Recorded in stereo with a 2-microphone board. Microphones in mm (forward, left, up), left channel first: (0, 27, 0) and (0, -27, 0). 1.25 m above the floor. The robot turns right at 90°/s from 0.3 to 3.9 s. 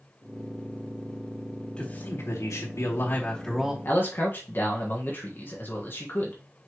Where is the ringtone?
I don't hear a ringtone.